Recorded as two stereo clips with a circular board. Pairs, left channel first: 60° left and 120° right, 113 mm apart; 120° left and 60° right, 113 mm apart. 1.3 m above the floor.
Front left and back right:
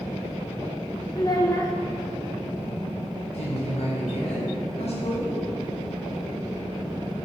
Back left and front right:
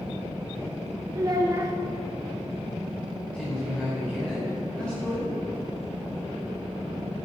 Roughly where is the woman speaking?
Ahead left.